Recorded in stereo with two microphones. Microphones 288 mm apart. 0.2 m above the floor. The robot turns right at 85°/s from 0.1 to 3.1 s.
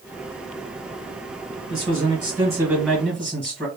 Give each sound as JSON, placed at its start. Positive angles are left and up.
{"t": 1.7, "sound": "a man speaking", "side_deg": -15, "distance_m": 1.3}